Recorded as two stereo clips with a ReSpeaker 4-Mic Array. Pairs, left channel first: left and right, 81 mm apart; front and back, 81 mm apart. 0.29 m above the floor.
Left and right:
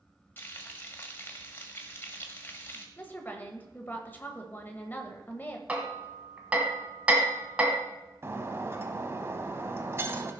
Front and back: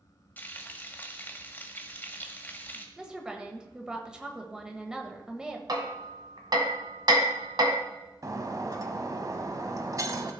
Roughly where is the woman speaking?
Behind left.